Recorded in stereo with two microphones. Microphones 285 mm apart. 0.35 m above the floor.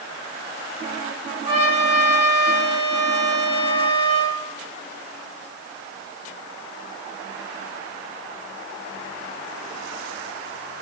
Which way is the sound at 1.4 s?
60° right (ahead or behind).